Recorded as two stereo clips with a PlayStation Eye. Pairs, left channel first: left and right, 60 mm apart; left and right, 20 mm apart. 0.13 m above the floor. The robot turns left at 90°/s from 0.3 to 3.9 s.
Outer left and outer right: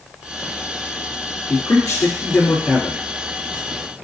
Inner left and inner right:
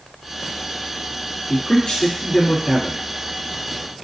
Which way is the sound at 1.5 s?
125° left.